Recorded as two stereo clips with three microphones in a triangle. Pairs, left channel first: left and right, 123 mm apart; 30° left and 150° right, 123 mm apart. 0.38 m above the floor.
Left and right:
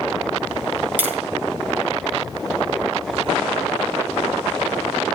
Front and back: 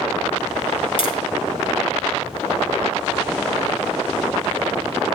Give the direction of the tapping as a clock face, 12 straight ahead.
12 o'clock.